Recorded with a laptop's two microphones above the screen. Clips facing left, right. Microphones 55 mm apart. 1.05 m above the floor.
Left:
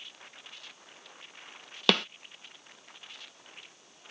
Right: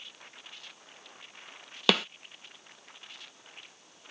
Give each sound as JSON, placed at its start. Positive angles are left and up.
{"t": 1.9, "sound": "a snare drum", "side_deg": 0}